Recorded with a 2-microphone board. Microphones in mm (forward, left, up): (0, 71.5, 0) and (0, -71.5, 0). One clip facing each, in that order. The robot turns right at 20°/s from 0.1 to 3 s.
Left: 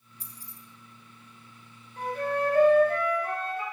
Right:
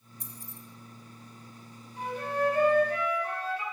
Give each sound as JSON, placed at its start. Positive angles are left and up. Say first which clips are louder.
{"t": 0.2, "sound": "keys jangling", "louder": "right 4 dB", "side_deg": 40, "distance_m": 1.5}
{"t": 2.0, "sound": "a flute", "louder": "left 2 dB", "side_deg": 60, "distance_m": 2.5}